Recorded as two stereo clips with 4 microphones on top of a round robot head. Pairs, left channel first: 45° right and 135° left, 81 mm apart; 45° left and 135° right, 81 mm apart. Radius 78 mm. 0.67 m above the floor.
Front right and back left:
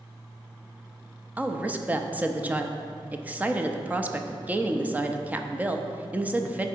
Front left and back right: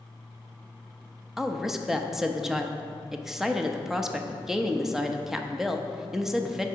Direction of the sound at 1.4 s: 150° left.